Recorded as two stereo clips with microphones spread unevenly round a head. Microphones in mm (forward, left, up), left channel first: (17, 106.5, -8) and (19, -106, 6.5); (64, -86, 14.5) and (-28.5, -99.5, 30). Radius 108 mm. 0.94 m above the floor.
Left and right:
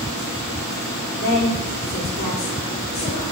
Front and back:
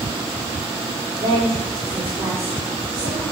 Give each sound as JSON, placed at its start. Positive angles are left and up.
{"t": 1.2, "sound": "a woman speaking", "azimuth_deg": 140, "distance_m": 2.0}